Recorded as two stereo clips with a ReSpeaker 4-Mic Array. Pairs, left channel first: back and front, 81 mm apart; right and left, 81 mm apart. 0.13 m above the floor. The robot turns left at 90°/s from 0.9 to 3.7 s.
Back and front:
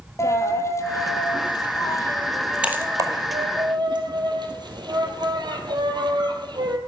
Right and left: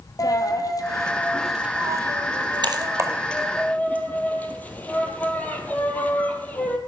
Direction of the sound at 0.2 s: 130° right.